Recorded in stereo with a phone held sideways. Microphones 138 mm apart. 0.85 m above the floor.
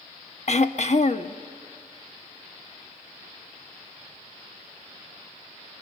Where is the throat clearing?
55° left (ahead or behind), 0.8 m.